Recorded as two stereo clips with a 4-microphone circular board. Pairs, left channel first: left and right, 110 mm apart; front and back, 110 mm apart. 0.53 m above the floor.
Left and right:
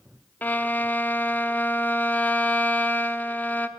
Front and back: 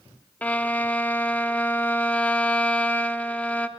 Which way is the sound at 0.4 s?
50° left.